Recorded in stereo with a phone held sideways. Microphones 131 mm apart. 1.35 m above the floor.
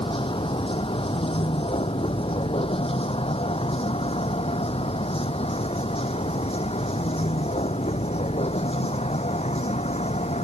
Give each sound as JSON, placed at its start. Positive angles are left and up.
{"t": 0.0, "sound": "a vehicle", "side_deg": 45}